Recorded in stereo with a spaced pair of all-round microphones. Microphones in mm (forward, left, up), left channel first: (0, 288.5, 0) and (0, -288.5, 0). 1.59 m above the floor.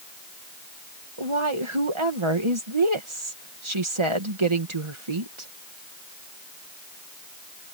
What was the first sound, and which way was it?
A woman speaking, 50° right (ahead or behind).